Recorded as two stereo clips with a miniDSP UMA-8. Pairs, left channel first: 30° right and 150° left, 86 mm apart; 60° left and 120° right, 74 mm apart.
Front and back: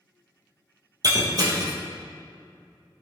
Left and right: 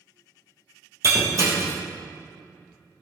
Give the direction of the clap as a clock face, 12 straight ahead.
I don't hear a clap.